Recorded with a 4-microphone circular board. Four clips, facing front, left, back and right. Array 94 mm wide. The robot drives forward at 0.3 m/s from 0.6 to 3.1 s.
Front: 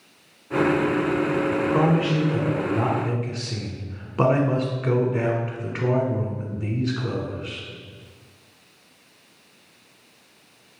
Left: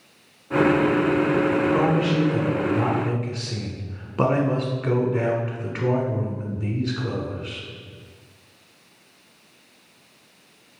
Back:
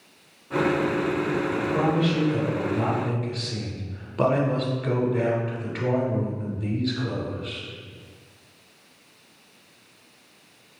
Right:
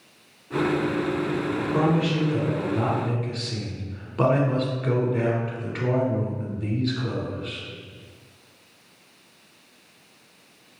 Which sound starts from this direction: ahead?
A man speaking, at 1.5 s.